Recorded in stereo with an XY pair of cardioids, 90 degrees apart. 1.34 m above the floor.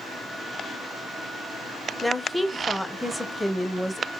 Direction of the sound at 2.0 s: 5° left.